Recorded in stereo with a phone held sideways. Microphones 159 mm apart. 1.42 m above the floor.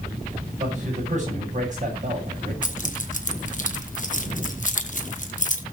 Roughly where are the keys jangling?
Left.